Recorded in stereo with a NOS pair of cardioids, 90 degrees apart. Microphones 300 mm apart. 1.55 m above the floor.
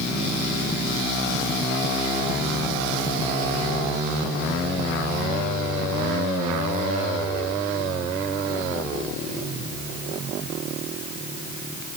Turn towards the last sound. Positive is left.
No sound to turn to.